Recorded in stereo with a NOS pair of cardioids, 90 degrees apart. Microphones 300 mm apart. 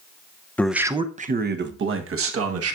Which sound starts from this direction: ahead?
A man speaking, at 0.6 s.